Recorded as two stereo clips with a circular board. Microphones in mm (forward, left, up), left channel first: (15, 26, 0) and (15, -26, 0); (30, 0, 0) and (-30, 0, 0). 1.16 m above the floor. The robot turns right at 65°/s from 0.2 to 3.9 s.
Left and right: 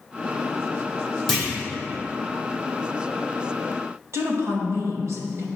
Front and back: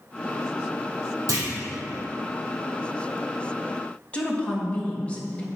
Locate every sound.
1.3 s a clunk: 170° left, 2.5 m; by 1.5 s 175° right, 2.5 m
4.1 s a woman speaking: 70° right, 1.6 m